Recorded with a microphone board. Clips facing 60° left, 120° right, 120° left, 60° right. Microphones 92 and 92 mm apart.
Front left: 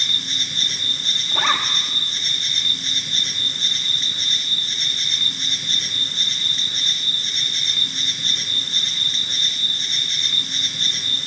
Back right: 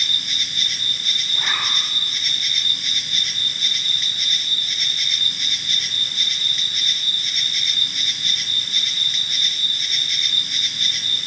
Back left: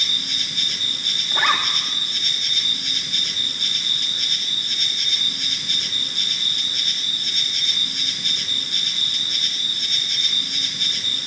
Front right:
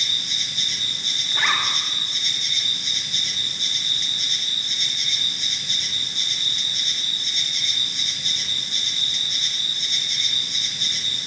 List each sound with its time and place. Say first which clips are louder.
0.0 s an insect: even, back left 2 dB; 115° left, 2.5 m
1.3 s a zipper: front left 6 dB, back left 3 dB; 80° left, 5 m